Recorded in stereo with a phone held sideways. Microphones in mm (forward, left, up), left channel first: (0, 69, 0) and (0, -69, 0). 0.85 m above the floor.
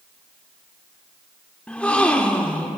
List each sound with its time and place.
1.7 s a gasp: 10° left (ahead or behind), 0.5 m